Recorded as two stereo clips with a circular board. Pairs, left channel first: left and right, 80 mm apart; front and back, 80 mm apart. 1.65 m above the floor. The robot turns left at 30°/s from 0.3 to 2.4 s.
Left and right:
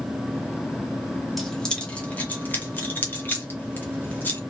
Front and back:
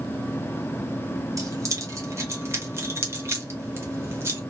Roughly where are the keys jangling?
Behind.